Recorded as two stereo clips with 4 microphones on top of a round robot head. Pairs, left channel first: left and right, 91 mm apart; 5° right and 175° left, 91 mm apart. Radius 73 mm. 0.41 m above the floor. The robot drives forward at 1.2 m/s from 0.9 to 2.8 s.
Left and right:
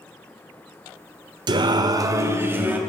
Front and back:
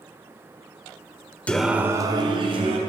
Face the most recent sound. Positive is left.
turn(degrees=-160)